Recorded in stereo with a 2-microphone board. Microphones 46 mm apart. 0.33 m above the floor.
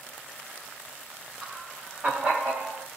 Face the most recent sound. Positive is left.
turn(degrees=-45)  # may be behind; listen again after turning